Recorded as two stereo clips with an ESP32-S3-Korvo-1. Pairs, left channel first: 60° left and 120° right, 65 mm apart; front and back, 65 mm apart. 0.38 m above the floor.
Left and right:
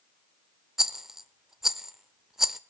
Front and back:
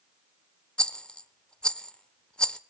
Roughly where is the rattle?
Ahead right.